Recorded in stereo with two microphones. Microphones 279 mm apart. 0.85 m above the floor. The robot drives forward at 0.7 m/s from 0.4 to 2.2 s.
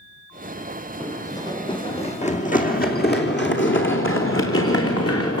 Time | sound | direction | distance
1.0 | running footsteps | 5° left (ahead or behind) | 1.6 m